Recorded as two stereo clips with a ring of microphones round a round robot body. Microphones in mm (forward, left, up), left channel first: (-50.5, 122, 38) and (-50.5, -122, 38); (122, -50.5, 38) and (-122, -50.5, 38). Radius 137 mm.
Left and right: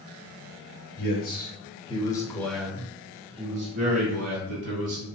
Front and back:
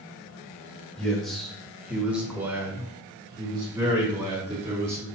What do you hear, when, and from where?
1.0 s a man speaking: 85° left, 1.3 m; by 5.1 s 110° right, 1.6 m